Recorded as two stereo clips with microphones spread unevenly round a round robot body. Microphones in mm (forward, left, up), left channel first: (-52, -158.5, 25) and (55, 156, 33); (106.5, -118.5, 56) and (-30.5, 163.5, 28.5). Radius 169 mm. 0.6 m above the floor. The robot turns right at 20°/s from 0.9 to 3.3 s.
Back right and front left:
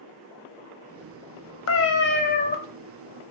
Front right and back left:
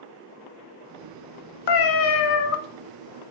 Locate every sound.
1.7 s a cat meowing: 60° right, 0.6 m; by 2.6 s 40° right, 0.6 m